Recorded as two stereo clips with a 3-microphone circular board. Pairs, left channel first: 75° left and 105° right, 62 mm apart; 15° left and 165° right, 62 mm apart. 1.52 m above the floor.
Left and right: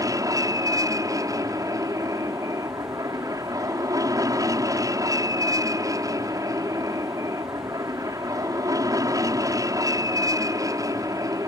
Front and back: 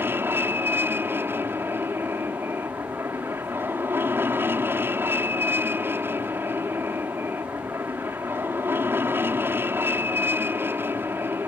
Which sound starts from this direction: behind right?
An aircraft, at 0.0 s.